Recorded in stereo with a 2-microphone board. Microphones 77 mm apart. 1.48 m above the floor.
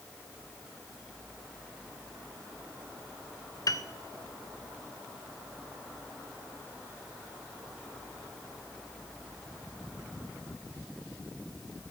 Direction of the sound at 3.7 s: 50° left (ahead or behind).